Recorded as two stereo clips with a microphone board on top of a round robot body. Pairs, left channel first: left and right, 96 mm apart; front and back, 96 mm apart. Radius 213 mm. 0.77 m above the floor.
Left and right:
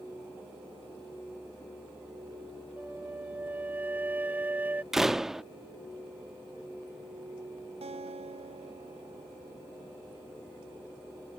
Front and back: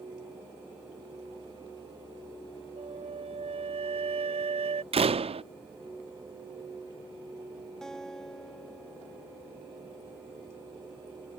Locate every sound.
2.8 s a flute: 165° right
4.9 s a door slam: 175° right
7.8 s a guitar: 85° right